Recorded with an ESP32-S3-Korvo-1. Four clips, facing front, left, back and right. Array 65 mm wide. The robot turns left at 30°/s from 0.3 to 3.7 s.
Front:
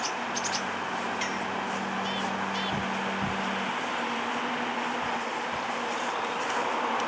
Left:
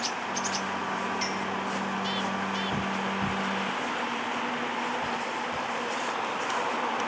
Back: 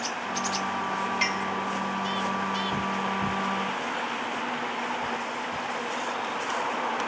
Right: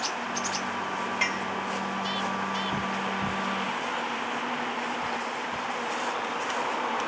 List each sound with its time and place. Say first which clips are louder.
1.2 s a clink: right 2 dB, back 3 dB; 130° right, 1.8 m; by 1.5 s 140° right, 1.8 m